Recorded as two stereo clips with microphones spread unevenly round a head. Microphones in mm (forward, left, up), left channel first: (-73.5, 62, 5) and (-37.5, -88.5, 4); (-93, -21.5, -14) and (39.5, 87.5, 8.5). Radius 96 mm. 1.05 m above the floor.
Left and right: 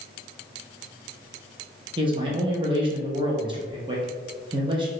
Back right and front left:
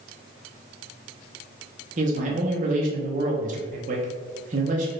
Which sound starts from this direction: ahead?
A man speaking, at 2.0 s.